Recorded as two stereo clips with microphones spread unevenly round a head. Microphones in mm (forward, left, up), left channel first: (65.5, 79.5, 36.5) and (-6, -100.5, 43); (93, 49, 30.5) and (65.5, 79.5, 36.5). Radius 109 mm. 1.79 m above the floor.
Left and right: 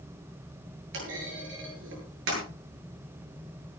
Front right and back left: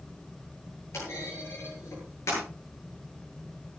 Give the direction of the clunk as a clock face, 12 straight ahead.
3 o'clock.